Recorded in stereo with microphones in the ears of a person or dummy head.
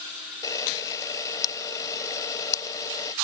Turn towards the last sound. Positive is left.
turn(degrees=20)  # may be behind; listen again after turning